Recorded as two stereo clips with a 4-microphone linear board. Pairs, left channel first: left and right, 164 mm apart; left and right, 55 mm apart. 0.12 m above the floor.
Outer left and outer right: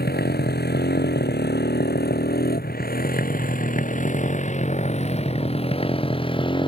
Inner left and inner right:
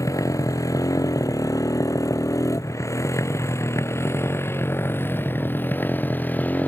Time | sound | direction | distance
0.0 | a motorcycle | 75° left (ahead or behind) | ?